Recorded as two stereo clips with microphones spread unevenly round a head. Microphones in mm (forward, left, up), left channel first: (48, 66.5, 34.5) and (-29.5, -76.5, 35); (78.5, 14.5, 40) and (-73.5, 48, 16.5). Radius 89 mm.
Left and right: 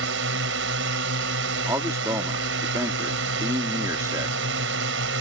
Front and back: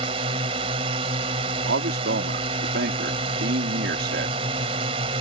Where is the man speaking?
170° left.